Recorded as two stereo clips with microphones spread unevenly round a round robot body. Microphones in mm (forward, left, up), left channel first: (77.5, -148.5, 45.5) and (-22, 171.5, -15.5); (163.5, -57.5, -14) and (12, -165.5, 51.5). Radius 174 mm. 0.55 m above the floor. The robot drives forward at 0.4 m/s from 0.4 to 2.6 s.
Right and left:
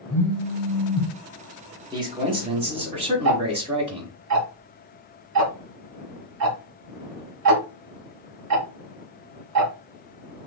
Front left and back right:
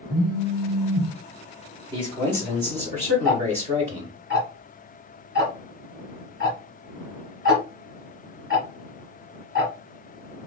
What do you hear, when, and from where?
0.1 s a phone buzzing: 170° left, 1.2 m
1.9 s a man speaking: 130° left, 0.8 m; by 4.2 s 150° left, 0.9 m
3.2 s ticking: 155° left, 0.7 m